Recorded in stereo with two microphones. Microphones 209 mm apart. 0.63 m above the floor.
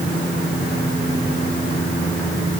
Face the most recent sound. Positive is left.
No sound to turn to.